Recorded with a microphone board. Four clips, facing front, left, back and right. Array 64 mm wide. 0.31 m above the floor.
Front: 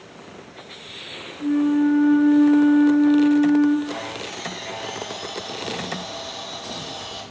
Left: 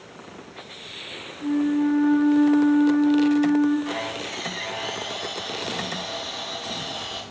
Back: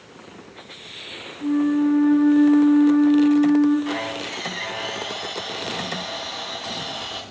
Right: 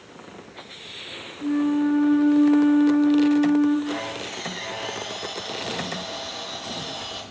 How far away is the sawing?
About 3 m.